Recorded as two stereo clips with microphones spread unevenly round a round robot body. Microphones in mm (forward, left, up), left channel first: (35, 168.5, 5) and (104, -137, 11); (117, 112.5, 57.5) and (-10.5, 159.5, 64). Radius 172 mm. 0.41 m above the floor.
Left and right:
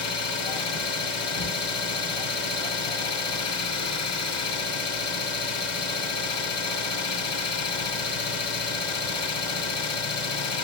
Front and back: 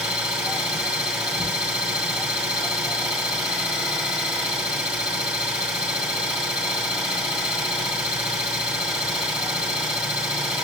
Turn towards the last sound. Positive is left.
turn(degrees=75)